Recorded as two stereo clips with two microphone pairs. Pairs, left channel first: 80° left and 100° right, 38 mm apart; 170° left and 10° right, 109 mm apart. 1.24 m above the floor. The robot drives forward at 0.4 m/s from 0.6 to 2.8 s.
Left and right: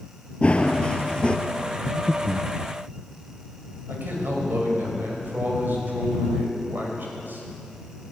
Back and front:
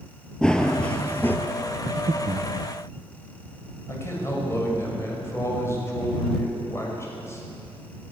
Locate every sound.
0.4 s running footsteps: 100° left, 1.4 m; by 1.4 s 115° left, 1.5 m
1.9 s breathing: 10° right, 0.7 m; by 2.5 s 20° right, 0.5 m
3.9 s a man speaking: 125° right, 6 m